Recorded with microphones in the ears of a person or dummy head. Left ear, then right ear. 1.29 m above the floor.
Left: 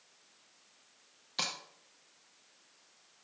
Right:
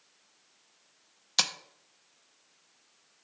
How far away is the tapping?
About 0.7 m.